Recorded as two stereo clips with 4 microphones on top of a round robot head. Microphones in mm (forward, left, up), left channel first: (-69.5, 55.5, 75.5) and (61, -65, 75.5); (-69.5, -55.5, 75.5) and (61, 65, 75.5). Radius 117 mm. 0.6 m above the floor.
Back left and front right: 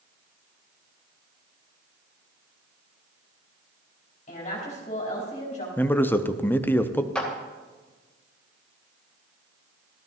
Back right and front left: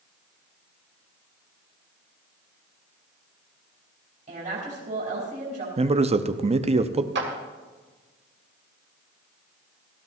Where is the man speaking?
65° left, 0.8 m.